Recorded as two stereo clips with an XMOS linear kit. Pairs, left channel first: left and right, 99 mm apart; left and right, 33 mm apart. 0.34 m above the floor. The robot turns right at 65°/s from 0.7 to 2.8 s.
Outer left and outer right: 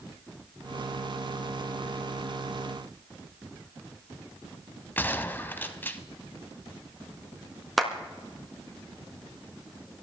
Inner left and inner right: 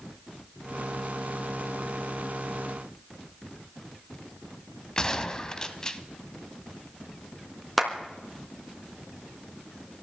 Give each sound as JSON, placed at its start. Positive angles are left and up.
{"t": 5.0, "sound": "a gunshot", "side_deg": 20, "distance_m": 1.0}
{"t": 7.8, "sound": "a clap", "side_deg": 0, "distance_m": 3.0}